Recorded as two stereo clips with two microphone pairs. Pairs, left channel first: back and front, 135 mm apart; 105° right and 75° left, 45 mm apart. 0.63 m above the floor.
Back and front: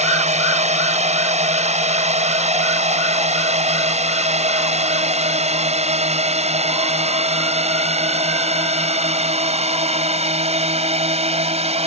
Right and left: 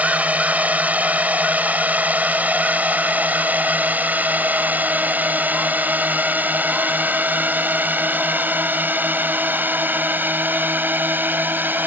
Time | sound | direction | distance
0.0 | a drone | 20° left | ?